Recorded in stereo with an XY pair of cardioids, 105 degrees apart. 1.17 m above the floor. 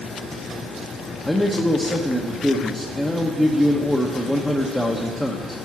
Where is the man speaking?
10° left, 1.0 m.